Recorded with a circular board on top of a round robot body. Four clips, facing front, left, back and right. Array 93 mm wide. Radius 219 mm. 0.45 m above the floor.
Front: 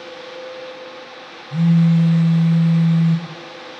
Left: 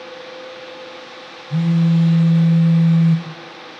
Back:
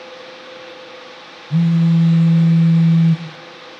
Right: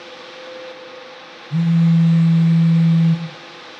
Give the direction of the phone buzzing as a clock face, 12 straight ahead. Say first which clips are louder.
Right 1 dB, even; 7 o'clock.